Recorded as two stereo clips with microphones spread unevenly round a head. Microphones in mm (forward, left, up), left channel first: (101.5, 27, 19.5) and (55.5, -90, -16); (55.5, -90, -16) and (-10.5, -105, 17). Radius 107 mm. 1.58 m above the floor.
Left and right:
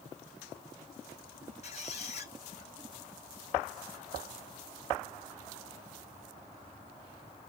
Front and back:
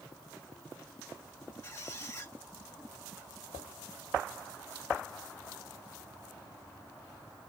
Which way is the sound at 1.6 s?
90° left.